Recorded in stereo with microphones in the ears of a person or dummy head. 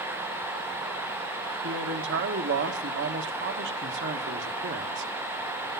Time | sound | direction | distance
1.6 | a man speaking | 60° right (ahead or behind) | 1.4 m